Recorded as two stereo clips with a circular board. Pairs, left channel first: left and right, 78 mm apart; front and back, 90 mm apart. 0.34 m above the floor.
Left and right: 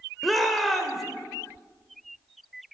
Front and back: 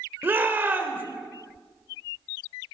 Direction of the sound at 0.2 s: 175° left.